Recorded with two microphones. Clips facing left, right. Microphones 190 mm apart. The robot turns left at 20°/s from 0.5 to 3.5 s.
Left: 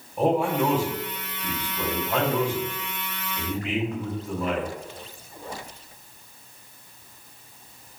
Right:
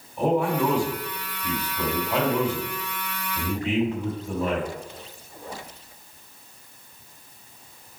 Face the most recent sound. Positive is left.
turn(degrees=-30)